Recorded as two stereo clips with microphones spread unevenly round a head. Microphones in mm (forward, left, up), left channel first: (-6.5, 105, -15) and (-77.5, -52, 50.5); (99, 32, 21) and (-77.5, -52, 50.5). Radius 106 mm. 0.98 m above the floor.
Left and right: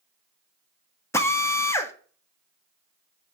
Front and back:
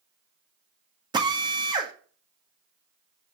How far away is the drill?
About 1.6 m.